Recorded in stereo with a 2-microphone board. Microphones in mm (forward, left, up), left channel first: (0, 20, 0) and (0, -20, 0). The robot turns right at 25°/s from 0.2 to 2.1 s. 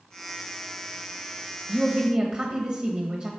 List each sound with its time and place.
1.7 s a woman speaking: 20° right (ahead or behind), 1.0 m; by 3.3 s 25° right (ahead or behind), 1.0 m